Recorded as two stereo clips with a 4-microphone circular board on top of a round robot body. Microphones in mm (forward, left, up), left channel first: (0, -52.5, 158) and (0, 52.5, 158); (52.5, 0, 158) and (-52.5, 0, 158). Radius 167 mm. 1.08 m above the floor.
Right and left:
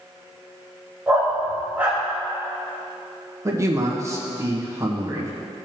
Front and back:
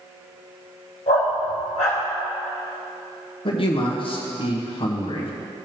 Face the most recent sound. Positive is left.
turn(degrees=30)